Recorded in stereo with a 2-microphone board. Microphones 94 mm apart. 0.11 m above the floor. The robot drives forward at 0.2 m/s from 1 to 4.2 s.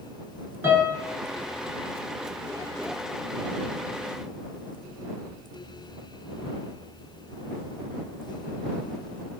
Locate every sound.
0.6 s a piano: 25° right (ahead or behind), 1.0 m